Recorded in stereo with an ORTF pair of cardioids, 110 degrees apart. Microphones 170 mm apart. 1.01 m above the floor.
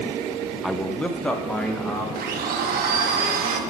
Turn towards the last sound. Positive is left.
turn(degrees=-60)